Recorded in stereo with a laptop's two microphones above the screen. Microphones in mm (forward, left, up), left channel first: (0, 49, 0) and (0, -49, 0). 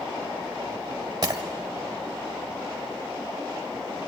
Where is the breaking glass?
40° right (ahead or behind), 1.4 m.